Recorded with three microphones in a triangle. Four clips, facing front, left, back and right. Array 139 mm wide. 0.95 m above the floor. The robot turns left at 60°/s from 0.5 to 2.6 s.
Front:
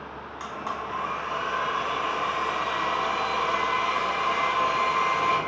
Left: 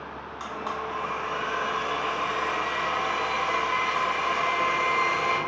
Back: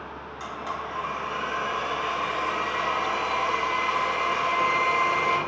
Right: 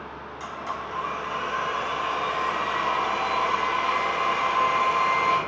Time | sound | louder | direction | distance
0.4 | a blender | left 1 dB, even | 60° left | 1.2 m